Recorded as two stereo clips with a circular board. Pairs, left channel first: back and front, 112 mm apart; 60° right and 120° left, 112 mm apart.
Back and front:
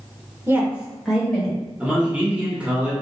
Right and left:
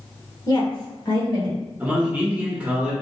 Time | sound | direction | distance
0.5 | a woman speaking | 50° right | 1.0 m
1.8 | a man speaking | 60° left | 1.1 m